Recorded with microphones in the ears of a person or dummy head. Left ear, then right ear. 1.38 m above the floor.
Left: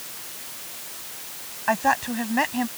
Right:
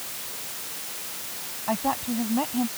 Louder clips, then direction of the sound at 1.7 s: Left 6 dB; 55° left (ahead or behind).